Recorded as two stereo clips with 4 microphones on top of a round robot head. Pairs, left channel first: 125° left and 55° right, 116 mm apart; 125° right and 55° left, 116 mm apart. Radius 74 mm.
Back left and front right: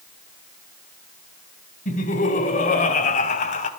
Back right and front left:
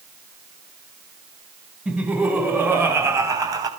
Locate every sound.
1.9 s laughter: 135° left, 4 m; by 3.7 s 115° left, 3.5 m